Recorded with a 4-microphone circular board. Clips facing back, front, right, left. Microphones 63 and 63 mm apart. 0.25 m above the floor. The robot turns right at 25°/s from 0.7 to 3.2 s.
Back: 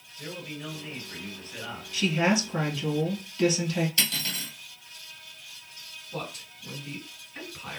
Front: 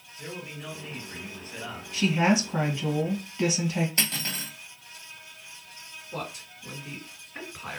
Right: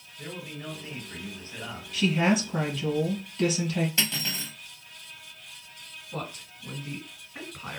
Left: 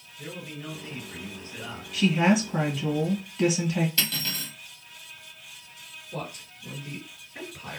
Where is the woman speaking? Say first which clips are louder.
Front 2 dB, left 2 dB; straight ahead, 1.4 m; by 3.9 s 30° left, 1.4 m.